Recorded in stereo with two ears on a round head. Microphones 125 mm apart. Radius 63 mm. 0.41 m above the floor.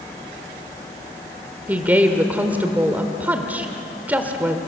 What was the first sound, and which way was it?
A woman speaking, 15° right (ahead or behind).